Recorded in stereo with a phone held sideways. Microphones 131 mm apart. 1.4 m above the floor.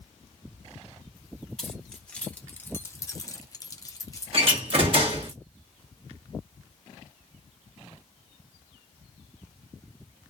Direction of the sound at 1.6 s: 5° left (ahead or behind).